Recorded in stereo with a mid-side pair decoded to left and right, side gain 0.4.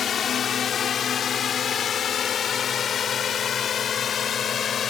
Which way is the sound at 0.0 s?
60° left.